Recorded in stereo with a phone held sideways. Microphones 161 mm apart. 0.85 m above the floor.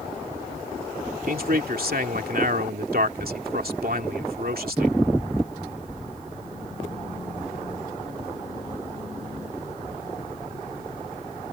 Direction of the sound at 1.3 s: 70° right (ahead or behind).